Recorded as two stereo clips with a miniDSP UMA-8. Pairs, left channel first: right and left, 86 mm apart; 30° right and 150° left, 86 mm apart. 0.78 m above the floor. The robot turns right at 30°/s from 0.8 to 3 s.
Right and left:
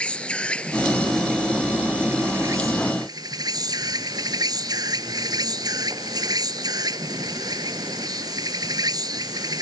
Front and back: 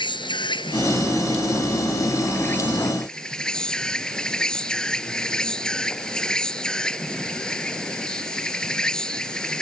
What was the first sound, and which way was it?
An insect, 15° right.